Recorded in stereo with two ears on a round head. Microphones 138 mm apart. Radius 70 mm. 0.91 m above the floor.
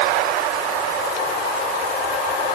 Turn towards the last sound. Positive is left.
No sound to turn to.